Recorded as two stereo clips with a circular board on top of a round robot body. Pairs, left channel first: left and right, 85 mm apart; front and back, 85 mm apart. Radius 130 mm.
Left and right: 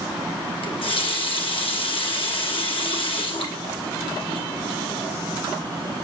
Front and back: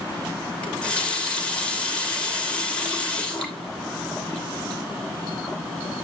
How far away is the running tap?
About 2.5 m.